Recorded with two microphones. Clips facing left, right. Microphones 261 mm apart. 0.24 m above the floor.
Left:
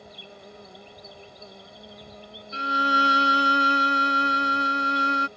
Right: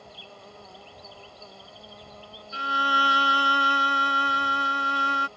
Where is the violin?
25° left (ahead or behind).